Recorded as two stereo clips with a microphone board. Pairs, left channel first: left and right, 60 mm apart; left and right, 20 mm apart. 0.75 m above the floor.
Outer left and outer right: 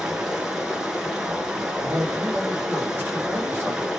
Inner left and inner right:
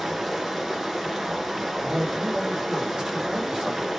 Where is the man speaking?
45° right (ahead or behind), 1.4 m.